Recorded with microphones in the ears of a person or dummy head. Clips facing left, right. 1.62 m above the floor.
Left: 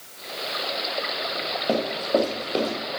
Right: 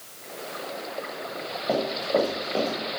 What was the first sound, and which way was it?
Running footsteps, 15° left (ahead or behind).